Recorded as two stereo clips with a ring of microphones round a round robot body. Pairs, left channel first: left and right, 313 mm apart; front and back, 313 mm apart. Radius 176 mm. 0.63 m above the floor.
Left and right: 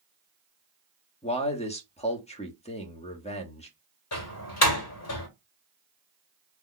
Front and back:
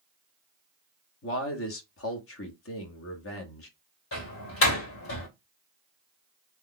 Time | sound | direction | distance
1.2 | a man speaking | 25° left | 1.3 m
4.1 | a door slam | 50° left | 2.0 m